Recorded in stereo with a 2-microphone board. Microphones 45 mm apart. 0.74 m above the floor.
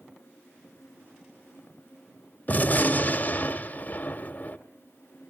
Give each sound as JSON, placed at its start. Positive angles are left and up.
{"t": 2.5, "sound": "a gunshot", "side_deg": 40, "distance_m": 1.1}